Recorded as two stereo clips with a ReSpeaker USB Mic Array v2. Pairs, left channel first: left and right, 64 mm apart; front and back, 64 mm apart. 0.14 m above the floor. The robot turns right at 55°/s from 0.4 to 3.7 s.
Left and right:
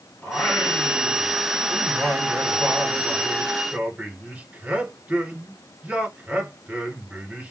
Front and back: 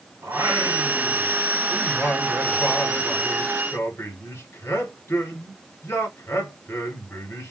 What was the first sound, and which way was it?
Singing, 155° left.